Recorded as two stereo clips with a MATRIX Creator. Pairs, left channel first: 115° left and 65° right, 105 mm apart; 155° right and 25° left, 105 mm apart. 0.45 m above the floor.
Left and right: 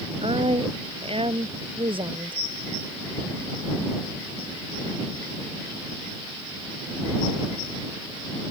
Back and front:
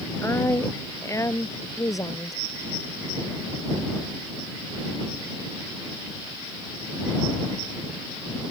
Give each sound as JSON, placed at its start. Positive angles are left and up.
{"t": 0.2, "sound": "a woman speaking", "azimuth_deg": -95}